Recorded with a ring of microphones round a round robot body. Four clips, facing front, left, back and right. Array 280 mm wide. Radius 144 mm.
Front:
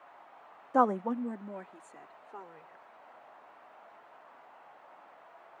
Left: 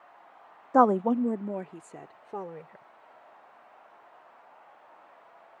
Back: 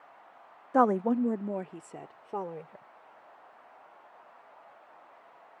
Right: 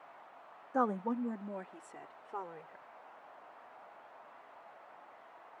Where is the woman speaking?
105° left; by 2.9 s 145° left.